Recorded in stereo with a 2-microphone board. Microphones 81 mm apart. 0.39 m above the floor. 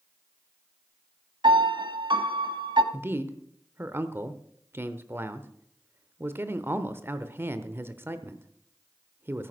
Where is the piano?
75° right (ahead or behind), 0.8 m.